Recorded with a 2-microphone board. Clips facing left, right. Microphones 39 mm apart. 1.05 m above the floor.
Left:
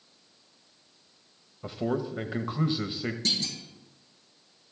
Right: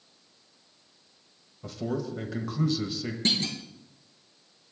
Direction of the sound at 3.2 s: 35° right (ahead or behind).